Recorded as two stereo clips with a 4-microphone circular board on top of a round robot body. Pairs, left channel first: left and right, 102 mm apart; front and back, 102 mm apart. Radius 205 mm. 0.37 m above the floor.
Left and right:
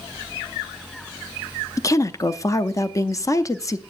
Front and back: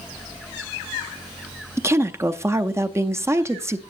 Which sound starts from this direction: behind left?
A woman speaking, at 1.8 s.